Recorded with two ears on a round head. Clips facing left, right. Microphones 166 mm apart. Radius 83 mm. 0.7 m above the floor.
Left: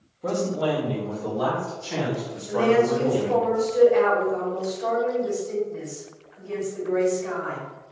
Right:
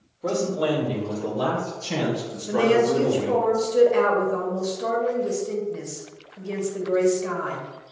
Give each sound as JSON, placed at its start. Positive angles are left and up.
{"t": 0.2, "sound": "a man speaking", "side_deg": -5, "distance_m": 1.0}
{"t": 2.5, "sound": "a woman speaking", "side_deg": -50, "distance_m": 1.3}